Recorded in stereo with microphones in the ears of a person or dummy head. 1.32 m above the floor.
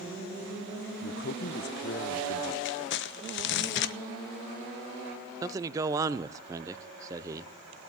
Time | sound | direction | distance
1.0 | a man speaking | 55° left (ahead or behind) | 0.7 m
2.6 | crumpling | 65° left (ahead or behind) | 0.6 m
5.4 | a man speaking | 20° right (ahead or behind) | 0.7 m